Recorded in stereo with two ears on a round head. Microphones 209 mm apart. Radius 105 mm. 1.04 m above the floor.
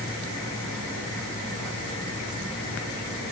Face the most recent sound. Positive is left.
No sound to turn to.